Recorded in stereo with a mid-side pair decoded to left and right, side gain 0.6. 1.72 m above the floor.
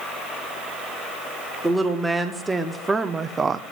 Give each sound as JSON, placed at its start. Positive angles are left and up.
{"t": 1.6, "sound": "a woman speaking", "azimuth_deg": -10, "distance_m": 1.7}